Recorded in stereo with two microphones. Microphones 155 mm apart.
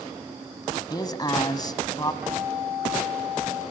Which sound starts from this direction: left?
A man speaking, at 0.9 s.